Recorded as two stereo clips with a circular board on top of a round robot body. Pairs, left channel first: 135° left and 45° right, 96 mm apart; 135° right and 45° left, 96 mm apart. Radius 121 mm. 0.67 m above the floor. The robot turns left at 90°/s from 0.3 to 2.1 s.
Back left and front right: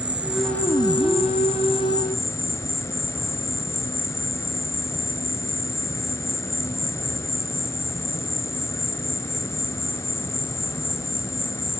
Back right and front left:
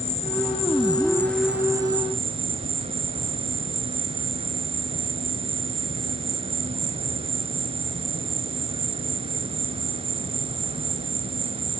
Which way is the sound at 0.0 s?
125° right.